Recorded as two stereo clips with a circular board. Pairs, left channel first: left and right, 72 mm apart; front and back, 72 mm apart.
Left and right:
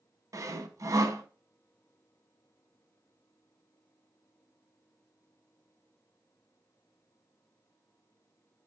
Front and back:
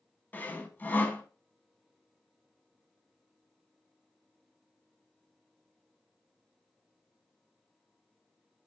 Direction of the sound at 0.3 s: 60° right.